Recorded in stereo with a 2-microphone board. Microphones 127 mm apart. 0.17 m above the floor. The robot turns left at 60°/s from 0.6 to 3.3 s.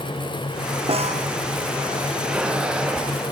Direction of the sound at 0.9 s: 50° right (ahead or behind).